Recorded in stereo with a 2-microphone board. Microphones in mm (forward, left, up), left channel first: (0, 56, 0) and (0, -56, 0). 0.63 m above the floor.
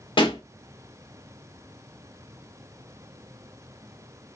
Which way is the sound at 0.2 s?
45° left (ahead or behind).